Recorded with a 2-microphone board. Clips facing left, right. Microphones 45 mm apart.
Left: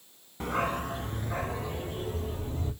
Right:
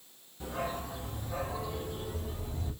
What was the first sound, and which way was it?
A dog barking, 65° left (ahead or behind).